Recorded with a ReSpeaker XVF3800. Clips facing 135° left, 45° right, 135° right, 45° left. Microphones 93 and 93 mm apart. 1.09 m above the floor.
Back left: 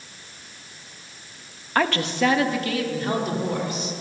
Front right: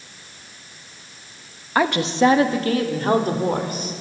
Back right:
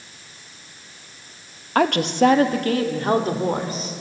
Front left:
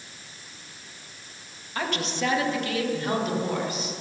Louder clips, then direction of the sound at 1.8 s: Front right 4 dB, back right 11 dB; 125° right.